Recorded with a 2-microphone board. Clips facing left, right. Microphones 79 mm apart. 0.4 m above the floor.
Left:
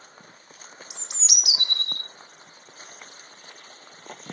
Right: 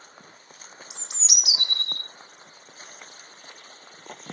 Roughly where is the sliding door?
No sliding door in this recording.